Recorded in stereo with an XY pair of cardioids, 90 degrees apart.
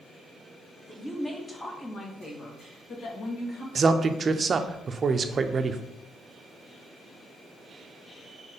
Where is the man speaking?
45° right, 0.7 m.